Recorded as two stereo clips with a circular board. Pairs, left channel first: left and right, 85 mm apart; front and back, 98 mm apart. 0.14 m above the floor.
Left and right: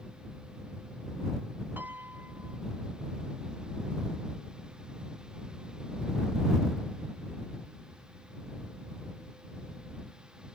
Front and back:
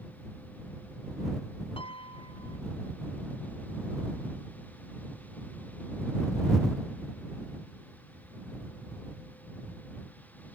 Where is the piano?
25° right.